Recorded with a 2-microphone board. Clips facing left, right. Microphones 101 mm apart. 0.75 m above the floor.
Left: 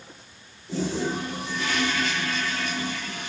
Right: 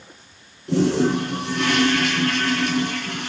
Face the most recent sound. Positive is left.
turn(degrees=-75)  # may be behind; listen again after turning